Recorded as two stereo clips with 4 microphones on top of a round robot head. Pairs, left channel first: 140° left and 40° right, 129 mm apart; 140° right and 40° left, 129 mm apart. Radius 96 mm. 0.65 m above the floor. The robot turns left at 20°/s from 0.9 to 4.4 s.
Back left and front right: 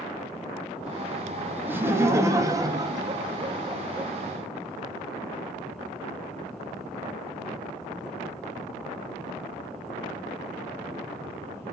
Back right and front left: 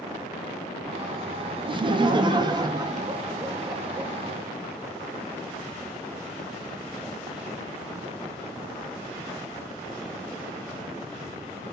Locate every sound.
1.7 s laughter: 25° left, 0.6 m; by 4.1 s 25° right, 0.6 m